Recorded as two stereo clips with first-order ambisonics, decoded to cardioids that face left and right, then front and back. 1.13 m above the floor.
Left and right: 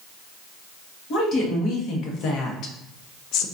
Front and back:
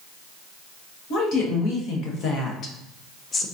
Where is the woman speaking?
40° left, 1.6 m; by 3.5 s 70° left, 0.5 m.